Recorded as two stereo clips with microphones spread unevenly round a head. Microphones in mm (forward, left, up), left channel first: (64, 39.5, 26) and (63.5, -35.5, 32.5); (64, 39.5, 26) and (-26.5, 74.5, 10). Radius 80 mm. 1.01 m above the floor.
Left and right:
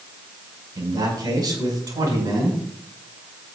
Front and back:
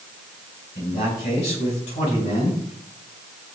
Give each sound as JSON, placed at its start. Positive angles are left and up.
{"t": 0.8, "sound": "a man speaking", "azimuth_deg": -60, "distance_m": 6.0}